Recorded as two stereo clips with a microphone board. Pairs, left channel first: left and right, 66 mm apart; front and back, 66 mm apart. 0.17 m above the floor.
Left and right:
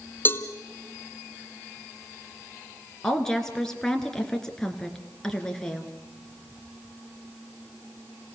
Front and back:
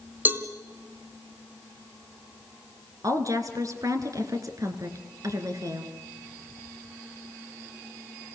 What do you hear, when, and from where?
0.2 s a cowbell: 135° left, 1.3 m
3.0 s a woman speaking: 170° left, 2 m